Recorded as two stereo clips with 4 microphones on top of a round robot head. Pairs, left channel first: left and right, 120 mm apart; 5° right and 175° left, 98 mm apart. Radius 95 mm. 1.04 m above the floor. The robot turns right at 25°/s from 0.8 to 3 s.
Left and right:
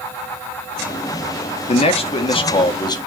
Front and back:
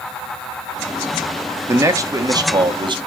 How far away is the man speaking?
About 1.2 m.